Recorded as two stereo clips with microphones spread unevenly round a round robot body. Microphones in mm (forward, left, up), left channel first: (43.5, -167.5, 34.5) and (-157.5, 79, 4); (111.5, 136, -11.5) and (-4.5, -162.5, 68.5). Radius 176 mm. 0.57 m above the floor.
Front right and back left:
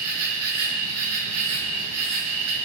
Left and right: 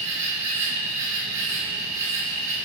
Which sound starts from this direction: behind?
An insect, at 0.0 s.